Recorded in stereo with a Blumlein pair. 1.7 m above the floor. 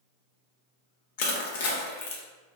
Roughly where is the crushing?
Ahead left.